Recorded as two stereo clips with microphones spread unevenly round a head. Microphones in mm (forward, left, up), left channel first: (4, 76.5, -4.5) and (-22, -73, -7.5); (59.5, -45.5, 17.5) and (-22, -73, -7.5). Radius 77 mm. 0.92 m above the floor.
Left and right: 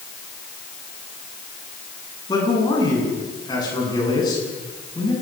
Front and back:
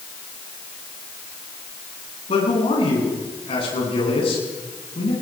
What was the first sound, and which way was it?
A man speaking, 15° left.